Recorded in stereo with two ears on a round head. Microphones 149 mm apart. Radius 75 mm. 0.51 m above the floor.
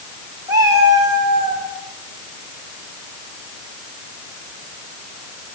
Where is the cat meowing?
20° right (ahead or behind), 8 m; by 1.6 s 25° right (ahead or behind), 7 m.